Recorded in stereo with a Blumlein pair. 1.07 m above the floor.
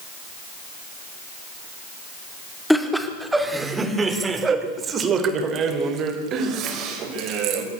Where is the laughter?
Straight ahead, 2.5 m; by 7.6 s 35° right, 5.5 m.